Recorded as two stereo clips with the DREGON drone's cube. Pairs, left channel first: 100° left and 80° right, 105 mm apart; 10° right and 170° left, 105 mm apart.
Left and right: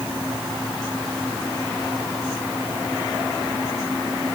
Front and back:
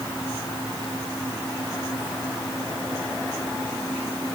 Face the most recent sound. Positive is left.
No sound to turn to.